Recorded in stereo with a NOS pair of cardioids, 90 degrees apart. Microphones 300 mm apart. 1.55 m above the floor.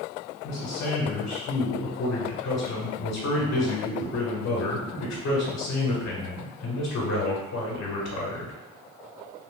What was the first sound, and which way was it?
A man speaking, 65° left.